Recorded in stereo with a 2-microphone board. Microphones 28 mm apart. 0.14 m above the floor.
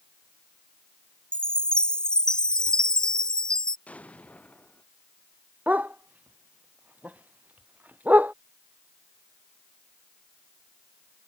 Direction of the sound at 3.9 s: 55° left (ahead or behind).